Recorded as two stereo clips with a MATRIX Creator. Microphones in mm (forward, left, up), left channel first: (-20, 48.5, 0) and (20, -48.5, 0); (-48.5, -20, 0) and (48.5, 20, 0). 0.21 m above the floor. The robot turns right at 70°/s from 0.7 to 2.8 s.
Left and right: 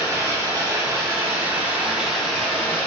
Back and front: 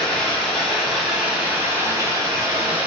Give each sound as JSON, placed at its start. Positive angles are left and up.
{"t": 0.0, "sound": "running water", "azimuth_deg": -80, "distance_m": 1.4}